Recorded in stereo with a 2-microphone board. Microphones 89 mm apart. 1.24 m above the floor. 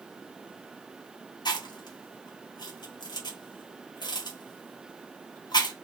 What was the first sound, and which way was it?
Chewing, 55° left (ahead or behind).